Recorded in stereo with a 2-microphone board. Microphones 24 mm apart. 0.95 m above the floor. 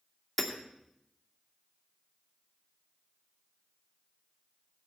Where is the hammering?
5° right (ahead or behind), 2.5 m.